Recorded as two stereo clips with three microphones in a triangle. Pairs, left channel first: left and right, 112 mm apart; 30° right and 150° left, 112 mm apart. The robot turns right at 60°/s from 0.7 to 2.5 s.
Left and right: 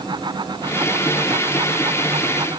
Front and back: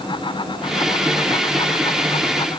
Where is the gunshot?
I don't hear a gunshot.